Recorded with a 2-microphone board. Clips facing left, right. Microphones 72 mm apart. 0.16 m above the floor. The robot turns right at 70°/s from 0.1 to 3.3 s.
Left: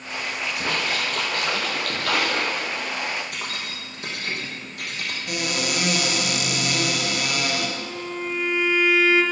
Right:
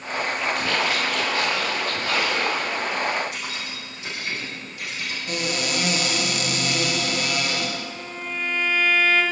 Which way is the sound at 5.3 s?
5° left (ahead or behind).